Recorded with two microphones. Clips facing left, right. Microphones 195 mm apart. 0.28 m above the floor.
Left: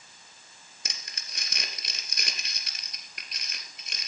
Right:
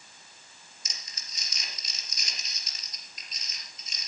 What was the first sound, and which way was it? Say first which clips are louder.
Crumpling: left 6 dB; 70° left (ahead or behind).